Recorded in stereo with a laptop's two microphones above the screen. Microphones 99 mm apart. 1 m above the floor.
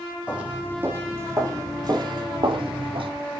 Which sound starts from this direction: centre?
Footsteps, at 0.3 s.